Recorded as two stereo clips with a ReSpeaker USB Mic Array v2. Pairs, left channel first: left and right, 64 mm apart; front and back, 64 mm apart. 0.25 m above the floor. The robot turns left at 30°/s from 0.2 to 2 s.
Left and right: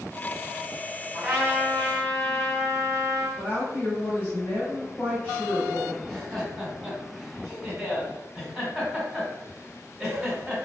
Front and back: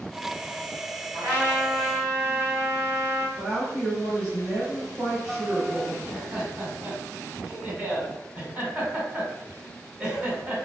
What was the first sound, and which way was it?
A trumpet, 175° right.